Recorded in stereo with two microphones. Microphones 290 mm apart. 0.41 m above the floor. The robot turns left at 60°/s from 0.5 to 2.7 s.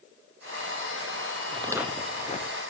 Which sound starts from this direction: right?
Footsteps, at 1.5 s.